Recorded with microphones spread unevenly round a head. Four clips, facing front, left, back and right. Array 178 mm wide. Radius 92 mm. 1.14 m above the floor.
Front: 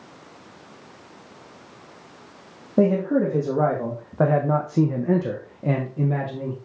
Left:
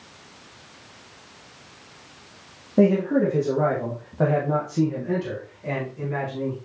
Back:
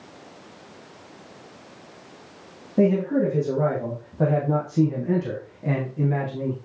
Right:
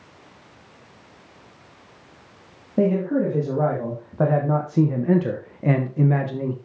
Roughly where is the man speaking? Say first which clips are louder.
Left 2 dB, front 1 dB; ahead.